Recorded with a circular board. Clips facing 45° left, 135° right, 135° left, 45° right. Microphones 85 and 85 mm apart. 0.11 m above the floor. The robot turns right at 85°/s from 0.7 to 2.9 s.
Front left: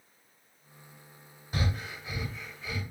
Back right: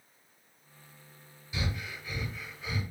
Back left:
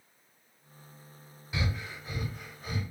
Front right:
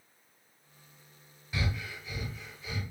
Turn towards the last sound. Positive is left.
turn(degrees=180)